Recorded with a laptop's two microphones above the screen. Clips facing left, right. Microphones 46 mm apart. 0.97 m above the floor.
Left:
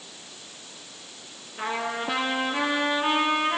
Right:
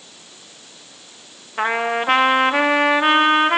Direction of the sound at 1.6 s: 65° right (ahead or behind).